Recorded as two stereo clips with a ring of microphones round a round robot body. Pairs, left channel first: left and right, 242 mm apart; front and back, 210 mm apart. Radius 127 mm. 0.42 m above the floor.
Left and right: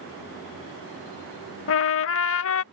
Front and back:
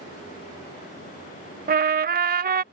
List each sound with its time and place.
1.7 s a trumpet: 130° left